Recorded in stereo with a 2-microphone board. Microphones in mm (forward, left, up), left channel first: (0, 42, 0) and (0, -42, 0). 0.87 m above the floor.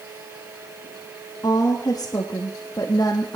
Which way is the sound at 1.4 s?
45° left (ahead or behind).